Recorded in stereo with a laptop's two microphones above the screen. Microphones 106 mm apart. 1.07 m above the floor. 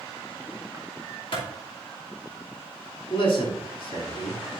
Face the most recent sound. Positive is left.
turn(degrees=60)  # may be behind; listen again after turning